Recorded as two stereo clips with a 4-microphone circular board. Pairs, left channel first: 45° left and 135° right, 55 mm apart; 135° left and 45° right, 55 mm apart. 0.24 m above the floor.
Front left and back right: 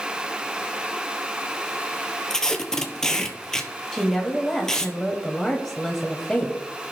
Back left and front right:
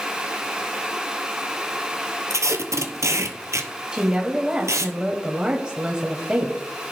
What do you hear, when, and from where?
2.3 s tape being pulled: 35° right, 0.9 m
3.9 s a woman speaking: 20° right, 1.0 m